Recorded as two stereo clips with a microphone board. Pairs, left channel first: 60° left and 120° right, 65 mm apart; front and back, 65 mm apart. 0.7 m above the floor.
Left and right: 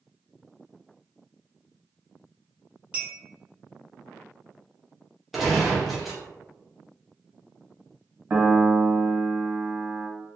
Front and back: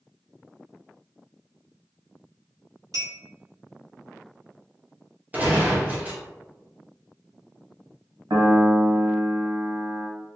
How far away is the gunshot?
About 0.9 m.